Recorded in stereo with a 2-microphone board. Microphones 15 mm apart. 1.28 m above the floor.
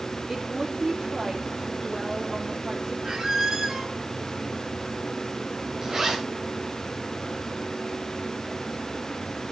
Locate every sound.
0.3 s a woman speaking: 40° right (ahead or behind), 3.5 m
3.0 s a squeak: 45° right (ahead or behind), 1.6 m
5.8 s a zipper: 45° right (ahead or behind), 8.5 m